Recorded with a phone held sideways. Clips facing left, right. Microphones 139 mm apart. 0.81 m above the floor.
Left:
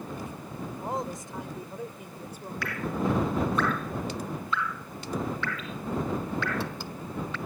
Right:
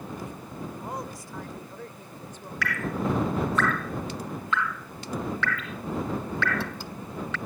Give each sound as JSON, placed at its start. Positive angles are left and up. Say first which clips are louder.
{"t": 0.8, "sound": "a woman speaking", "louder": "left 3 dB", "side_deg": 25}
{"t": 2.6, "sound": "dripping", "louder": "right 1 dB", "side_deg": -85}